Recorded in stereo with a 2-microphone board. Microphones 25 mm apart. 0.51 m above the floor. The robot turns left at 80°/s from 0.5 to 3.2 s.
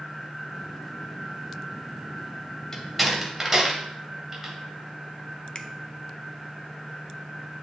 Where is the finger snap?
30° left (ahead or behind), 0.7 m.